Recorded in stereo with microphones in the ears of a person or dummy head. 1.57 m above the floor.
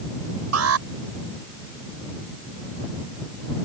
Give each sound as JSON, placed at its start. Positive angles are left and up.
{"t": 0.5, "sound": "an alarm", "side_deg": -85}